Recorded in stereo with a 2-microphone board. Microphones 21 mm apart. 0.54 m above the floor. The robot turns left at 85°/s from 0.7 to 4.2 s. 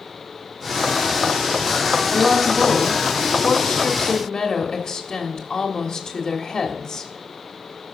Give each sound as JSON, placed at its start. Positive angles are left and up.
{"t": 2.1, "sound": "a woman speaking", "azimuth_deg": -130, "distance_m": 1.6}